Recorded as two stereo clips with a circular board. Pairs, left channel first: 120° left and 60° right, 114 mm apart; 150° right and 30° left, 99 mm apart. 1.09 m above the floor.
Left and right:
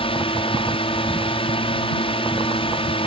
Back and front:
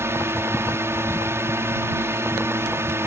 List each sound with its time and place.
0.0 s a drone: 90° left